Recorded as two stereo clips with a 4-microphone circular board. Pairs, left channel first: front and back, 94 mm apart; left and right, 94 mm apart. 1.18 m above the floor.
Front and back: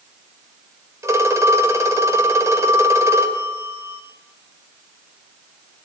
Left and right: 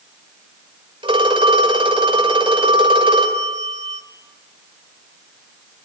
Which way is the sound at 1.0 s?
120° right.